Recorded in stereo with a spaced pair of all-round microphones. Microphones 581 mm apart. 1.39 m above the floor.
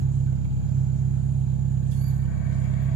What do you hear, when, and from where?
0.0 s an engine running: 55° right (ahead or behind), 0.8 m